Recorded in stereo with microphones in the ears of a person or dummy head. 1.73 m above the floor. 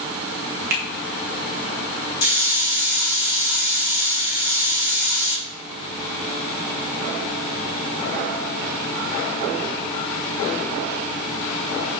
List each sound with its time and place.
0.7 s a finger snap: 50° right (ahead or behind), 0.5 m
2.2 s a hiss: 75° left (ahead or behind), 1.0 m